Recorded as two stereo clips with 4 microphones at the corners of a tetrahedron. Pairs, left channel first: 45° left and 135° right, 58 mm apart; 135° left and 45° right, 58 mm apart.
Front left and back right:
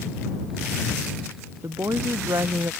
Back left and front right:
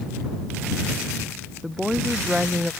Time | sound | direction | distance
1.6 | a woman speaking | 125° right | ?